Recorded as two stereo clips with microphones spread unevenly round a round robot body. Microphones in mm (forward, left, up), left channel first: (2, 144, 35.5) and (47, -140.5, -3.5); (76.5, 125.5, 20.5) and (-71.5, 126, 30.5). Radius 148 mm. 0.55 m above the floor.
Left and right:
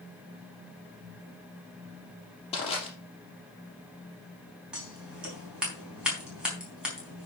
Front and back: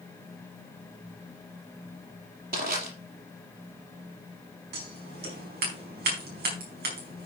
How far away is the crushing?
About 5 m.